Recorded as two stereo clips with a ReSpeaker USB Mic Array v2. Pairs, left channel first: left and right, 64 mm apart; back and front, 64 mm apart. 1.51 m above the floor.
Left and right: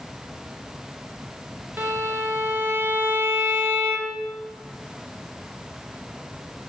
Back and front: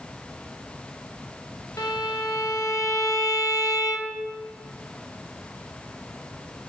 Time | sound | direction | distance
1.8 | a violin | 145° right | 0.8 m